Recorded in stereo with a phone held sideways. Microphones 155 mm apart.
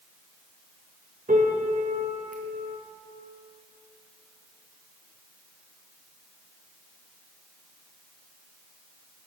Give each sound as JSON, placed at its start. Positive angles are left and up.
{"t": 1.3, "sound": "a piano", "side_deg": -55, "distance_m": 0.8}